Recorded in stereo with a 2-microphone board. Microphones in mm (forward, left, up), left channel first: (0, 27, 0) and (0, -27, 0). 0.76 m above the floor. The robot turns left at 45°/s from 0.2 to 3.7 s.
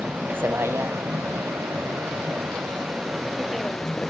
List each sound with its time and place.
0.0 s a vehicle: 35° right; by 4.1 s 170° left